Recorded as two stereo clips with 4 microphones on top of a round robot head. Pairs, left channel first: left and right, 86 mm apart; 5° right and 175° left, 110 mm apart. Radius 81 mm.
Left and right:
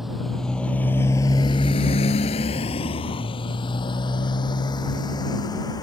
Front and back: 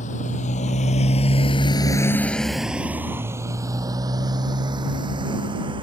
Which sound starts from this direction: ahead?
A motorcycle, at 0.0 s.